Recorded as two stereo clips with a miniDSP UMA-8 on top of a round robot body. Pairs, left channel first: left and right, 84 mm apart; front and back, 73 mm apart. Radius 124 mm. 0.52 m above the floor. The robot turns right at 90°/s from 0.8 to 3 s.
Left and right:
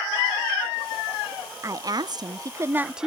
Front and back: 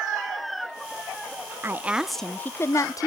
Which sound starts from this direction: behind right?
A woman speaking, at 1.6 s.